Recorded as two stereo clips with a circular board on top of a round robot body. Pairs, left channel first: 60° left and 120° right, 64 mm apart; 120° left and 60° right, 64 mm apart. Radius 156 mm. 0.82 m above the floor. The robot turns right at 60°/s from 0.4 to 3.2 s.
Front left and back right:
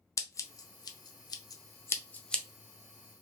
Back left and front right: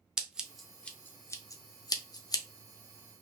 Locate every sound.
0.2 s scissors: 20° left, 0.6 m; by 2.4 s 145° left, 0.6 m